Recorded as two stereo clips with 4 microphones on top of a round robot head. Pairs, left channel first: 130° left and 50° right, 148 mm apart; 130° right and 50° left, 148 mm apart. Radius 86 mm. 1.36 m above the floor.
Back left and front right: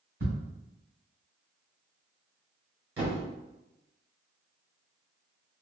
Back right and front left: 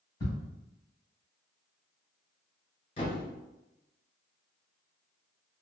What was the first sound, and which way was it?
Ticking, 65° right.